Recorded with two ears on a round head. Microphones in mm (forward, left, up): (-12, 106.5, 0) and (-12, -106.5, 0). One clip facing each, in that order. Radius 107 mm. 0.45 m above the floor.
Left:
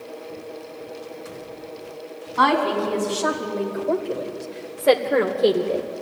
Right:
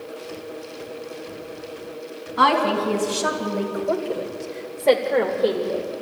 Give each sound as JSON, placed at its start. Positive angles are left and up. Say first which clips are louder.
{"t": 2.4, "sound": "a woman speaking", "louder": "even", "side_deg": -15, "distance_m": 4.5}